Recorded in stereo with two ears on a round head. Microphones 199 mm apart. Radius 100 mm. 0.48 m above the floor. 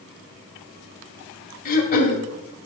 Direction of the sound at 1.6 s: 40° left (ahead or behind).